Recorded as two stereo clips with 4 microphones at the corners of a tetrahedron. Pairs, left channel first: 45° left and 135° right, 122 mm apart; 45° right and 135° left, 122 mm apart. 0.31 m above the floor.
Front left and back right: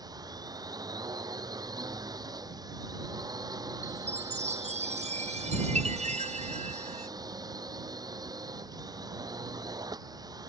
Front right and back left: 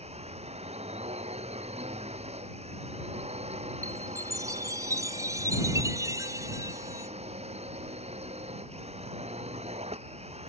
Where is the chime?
160° right.